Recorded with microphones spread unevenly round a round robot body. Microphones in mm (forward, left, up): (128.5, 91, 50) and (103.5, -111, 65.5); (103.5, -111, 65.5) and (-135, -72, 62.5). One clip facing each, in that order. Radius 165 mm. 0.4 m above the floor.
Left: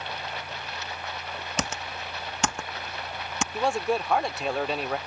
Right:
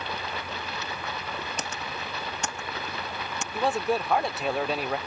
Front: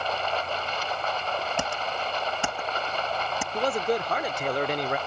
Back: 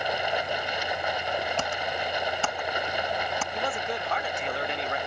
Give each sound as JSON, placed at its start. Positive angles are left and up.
{"t": 0.0, "sound": "running water", "azimuth_deg": -110}
{"t": 1.6, "sound": "typing on a keyboard", "azimuth_deg": 70}
{"t": 3.5, "sound": "a man speaking", "azimuth_deg": -5}